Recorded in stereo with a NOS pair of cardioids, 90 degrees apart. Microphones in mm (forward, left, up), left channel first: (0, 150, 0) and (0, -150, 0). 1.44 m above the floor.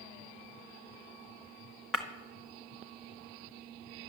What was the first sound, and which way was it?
Breaking glass, straight ahead.